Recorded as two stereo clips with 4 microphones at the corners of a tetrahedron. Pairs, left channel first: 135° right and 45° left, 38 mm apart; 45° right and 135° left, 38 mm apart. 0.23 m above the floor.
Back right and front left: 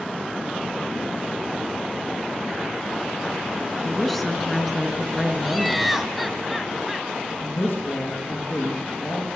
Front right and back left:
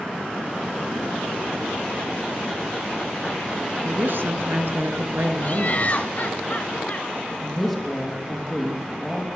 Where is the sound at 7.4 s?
125° right, 6.5 m.